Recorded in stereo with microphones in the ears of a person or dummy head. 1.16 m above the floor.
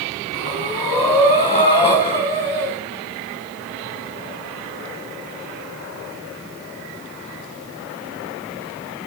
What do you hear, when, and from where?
0.3 s breathing: 25° left (ahead or behind), 2.5 m